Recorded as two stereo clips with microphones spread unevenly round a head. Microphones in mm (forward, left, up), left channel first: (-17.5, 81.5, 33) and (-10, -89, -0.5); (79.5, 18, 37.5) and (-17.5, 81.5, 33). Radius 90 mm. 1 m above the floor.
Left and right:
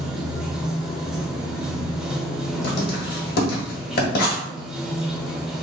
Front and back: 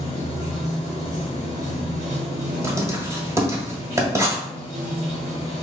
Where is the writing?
85° left, 1.3 m.